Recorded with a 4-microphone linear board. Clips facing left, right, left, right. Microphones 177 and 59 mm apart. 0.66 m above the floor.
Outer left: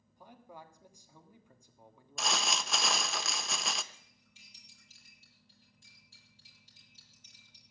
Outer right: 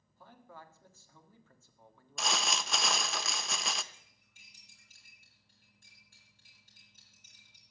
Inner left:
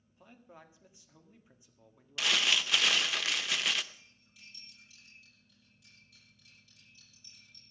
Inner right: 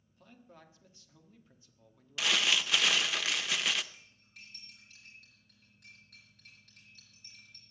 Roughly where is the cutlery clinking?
Right.